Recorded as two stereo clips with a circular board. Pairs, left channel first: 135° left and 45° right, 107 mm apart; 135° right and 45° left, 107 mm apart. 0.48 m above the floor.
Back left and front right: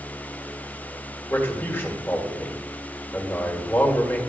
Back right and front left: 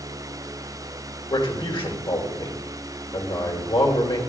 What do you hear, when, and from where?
1.3 s a man speaking: 160° right, 1.6 m